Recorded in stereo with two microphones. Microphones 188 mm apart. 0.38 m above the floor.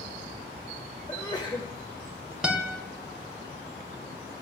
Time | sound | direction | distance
1.1 | a sneeze | 25° left (ahead or behind) | 1.1 m
2.4 | a guitar | 5° right (ahead or behind) | 1.2 m